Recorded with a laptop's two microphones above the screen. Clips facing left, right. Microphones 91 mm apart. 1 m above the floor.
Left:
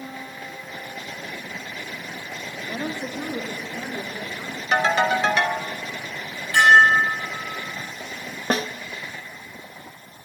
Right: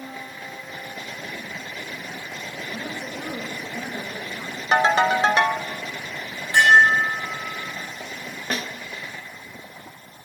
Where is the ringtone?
35° right (ahead or behind), 1.0 m.